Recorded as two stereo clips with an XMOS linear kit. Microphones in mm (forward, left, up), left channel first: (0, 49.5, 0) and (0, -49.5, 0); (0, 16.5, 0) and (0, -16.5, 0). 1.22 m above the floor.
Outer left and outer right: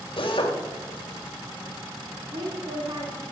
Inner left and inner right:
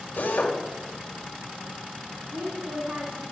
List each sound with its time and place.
0.2 s a drill: 60° left (ahead or behind), 1.5 m
2.3 s a woman speaking: 65° right (ahead or behind), 1.9 m